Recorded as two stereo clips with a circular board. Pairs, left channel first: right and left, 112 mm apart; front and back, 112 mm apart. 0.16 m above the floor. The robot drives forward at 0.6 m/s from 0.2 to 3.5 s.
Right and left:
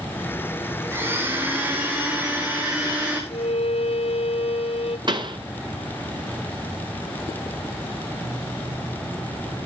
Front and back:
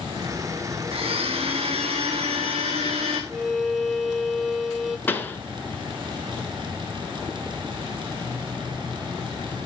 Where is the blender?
160° left, 3 m; by 3.2 s 165° left, 4 m.